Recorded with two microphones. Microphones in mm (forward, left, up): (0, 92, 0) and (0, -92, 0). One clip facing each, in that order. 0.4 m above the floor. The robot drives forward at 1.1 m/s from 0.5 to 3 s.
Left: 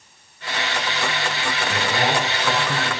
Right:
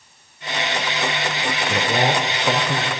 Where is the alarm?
I don't hear an alarm.